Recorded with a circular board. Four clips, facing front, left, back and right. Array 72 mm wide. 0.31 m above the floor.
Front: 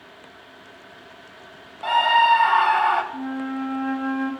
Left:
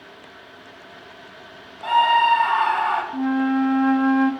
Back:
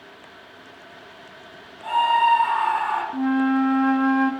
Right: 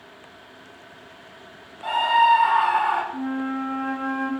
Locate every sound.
1.8 s a scream: 15° left, 1.4 m
3.1 s a flute: 140° left, 0.7 m